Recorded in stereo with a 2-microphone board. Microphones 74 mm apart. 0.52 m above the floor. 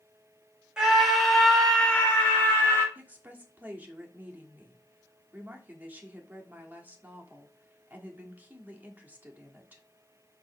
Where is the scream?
10° right (ahead or behind), 3 m; by 2.9 s 30° left (ahead or behind), 3 m.